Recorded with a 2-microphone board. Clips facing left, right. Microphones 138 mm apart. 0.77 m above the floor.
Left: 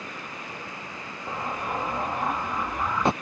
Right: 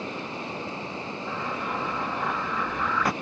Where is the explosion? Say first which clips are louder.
Left 2 dB; 25° left (ahead or behind).